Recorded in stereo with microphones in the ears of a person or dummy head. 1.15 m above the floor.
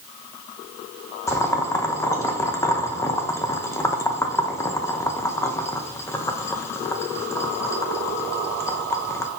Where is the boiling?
15° left (ahead or behind), 0.6 m.